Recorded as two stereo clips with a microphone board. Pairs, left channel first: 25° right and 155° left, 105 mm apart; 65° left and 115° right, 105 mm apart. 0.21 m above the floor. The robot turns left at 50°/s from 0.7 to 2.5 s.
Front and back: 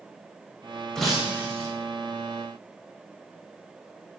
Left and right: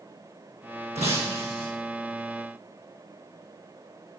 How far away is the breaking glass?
About 4 m.